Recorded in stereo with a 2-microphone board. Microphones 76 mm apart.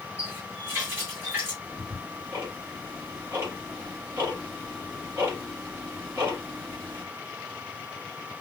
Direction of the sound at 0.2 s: 30° right (ahead or behind).